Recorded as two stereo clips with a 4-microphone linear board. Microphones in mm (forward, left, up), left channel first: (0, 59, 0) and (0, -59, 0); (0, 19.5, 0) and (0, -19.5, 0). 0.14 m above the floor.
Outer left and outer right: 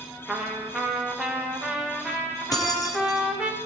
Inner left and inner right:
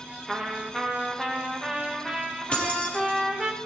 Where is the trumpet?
5° right (ahead or behind), 2.5 m.